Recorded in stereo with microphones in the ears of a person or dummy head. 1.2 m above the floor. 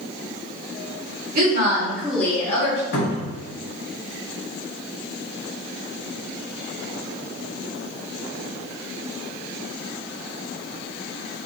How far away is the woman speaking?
About 1.4 m.